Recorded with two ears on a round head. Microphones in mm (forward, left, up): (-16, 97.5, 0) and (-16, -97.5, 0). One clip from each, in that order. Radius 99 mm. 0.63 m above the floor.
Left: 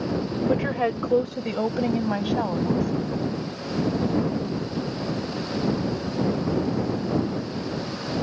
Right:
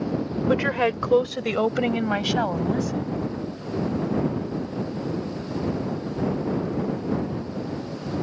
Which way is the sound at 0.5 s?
55° right (ahead or behind).